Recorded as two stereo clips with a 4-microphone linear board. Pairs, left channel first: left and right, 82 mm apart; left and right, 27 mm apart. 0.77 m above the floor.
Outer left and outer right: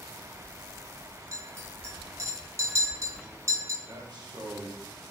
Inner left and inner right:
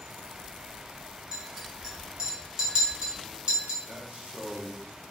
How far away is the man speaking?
About 1.1 m.